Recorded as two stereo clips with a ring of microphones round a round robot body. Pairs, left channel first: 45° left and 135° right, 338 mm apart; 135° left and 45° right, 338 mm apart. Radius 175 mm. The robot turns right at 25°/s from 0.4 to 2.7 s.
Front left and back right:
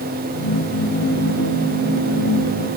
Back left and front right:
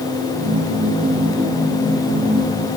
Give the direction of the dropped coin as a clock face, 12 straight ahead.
I don't hear a dropped coin.